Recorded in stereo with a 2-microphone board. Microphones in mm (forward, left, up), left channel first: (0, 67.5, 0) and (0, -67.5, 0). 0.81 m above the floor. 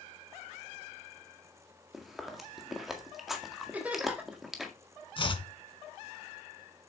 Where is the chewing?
Centre (ahead or behind), 1.8 m.